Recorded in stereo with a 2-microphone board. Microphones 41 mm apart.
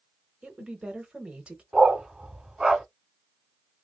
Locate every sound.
0.4 s a woman speaking: 25° right (ahead or behind), 0.9 m
1.7 s a dog barking: 15° right (ahead or behind), 0.8 m